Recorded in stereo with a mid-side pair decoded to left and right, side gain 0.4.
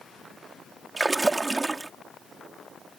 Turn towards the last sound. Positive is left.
turn(degrees=-25)